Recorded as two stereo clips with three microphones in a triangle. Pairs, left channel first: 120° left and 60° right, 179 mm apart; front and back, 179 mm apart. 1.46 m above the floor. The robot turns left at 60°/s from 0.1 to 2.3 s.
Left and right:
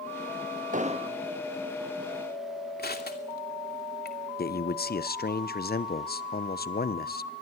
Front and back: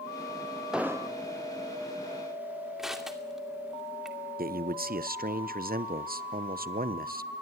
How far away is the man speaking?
About 0.9 m.